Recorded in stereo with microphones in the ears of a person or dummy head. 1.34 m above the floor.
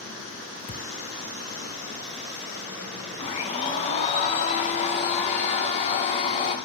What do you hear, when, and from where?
0.7 s a thud: 25° left (ahead or behind), 0.7 m
3.2 s a blender: 35° left (ahead or behind), 2 m